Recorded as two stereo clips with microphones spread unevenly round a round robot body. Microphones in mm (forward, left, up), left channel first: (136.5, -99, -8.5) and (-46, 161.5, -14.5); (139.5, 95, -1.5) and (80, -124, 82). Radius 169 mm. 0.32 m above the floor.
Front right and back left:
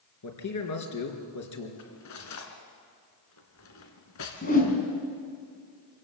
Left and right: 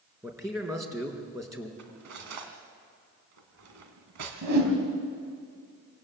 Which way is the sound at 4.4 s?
120° right.